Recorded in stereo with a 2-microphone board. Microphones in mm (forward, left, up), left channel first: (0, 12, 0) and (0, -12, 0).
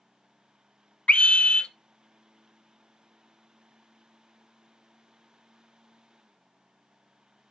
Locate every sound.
1.1 s a scream: 55° left (ahead or behind), 0.7 m